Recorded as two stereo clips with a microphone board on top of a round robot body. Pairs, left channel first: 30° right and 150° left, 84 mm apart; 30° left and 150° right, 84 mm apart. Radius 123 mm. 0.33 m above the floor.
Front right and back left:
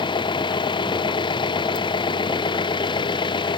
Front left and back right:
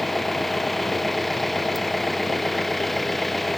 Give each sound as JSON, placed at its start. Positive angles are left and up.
{"t": 0.0, "sound": "an engine running", "azimuth_deg": -60}